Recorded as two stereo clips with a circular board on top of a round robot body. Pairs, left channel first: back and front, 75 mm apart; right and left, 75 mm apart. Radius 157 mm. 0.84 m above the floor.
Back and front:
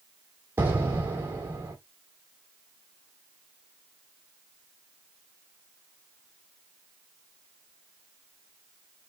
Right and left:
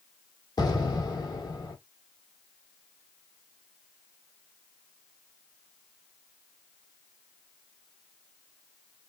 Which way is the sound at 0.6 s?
60° right.